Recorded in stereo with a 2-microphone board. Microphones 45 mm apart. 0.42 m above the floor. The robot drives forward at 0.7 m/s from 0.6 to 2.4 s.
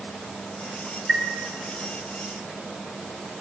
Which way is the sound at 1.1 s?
10° right (ahead or behind).